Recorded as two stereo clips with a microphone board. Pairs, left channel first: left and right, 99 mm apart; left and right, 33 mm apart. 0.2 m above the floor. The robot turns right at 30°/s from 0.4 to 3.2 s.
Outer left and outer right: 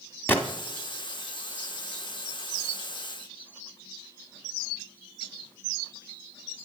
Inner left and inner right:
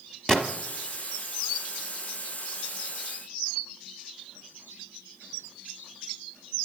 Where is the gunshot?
20° left (ahead or behind), 0.9 m.